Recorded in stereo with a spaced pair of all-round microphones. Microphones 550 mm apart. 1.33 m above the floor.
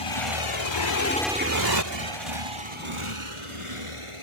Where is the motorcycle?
75° left (ahead or behind); by 4.2 s 75° right (ahead or behind).